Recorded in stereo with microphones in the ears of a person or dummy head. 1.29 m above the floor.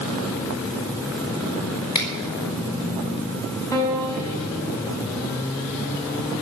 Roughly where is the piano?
Centre.